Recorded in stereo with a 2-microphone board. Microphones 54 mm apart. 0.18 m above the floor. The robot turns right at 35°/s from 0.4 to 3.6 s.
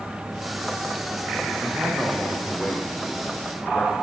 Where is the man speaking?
40° right, 8 m; by 3.9 s 35° left, 8 m.